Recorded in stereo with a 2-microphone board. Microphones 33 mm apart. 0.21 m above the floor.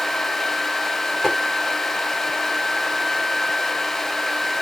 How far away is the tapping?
About 1.4 m.